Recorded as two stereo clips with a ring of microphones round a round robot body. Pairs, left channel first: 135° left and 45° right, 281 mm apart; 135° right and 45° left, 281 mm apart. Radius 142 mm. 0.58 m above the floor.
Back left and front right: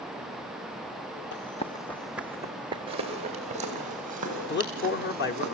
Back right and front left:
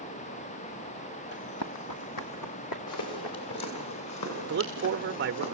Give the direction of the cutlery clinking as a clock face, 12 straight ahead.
I don't hear cutlery clinking.